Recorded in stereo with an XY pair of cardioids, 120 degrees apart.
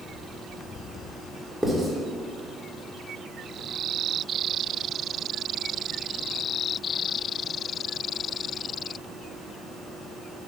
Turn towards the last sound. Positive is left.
turn(degrees=5)